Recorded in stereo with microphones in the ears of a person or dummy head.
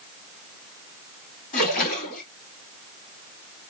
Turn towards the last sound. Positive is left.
turn(degrees=45)  # may be behind; listen again after turning